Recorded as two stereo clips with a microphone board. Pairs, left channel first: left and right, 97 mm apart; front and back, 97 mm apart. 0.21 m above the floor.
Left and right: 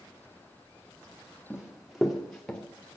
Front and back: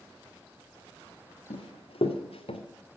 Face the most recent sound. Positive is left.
turn(degrees=5)